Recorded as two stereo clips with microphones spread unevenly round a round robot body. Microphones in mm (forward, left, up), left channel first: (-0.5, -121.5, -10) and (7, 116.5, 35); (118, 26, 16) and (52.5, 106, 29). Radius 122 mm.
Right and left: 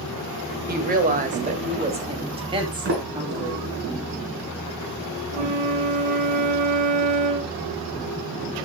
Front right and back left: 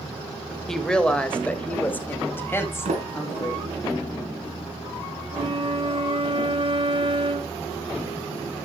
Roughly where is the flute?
Left.